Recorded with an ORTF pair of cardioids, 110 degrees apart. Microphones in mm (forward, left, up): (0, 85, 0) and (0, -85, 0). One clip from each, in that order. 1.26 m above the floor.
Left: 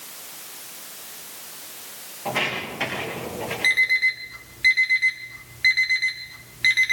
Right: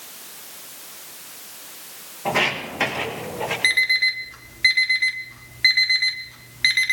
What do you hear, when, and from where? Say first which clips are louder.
2.2 s footsteps: right 4 dB; 40° right, 5 m; by 3.5 s 35° right, 6 m
3.6 s an alarm clock: even; 20° right, 1.7 m